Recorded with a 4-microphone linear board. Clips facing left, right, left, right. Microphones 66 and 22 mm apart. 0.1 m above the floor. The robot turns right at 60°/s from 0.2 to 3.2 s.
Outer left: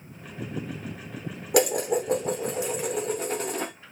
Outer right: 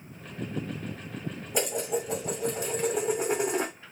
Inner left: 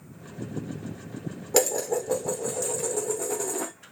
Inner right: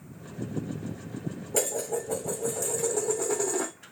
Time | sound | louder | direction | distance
1.5 | dishes clattering | outer left 7 dB, inner left 5 dB | 95° left | 3 m